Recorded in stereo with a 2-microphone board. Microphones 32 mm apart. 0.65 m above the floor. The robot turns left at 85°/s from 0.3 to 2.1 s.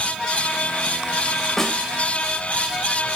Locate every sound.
1.6 s a snare drum: 10° left (ahead or behind), 3.5 m; by 1.8 s 30° left (ahead or behind), 3.5 m